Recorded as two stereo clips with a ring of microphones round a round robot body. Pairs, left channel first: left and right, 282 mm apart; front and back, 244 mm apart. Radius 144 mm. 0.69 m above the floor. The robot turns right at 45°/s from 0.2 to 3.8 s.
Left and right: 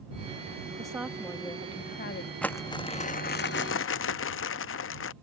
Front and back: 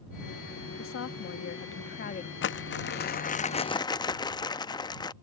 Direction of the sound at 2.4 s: 5° left.